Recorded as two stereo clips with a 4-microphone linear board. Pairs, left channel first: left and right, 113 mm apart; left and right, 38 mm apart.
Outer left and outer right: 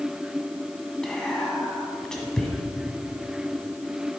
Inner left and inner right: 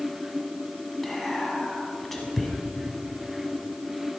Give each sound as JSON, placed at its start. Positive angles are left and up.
{"t": 1.0, "sound": "whispering", "side_deg": 5, "distance_m": 1.5}